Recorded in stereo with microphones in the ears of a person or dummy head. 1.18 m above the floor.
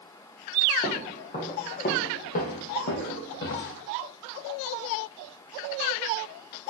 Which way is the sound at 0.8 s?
25° left (ahead or behind).